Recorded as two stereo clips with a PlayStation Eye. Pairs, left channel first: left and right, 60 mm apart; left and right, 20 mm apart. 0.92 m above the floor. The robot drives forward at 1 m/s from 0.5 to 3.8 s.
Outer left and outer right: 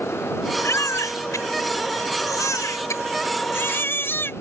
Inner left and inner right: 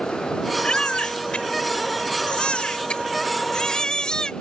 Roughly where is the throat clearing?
No throat clearing in this recording.